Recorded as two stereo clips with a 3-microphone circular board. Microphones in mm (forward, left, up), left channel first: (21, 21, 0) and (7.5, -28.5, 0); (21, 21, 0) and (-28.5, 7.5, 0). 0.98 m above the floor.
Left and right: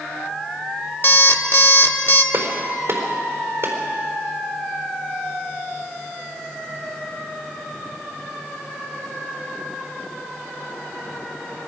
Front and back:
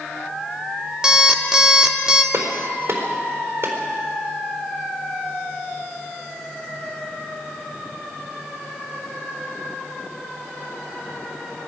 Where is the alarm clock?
120° left, 1.3 m.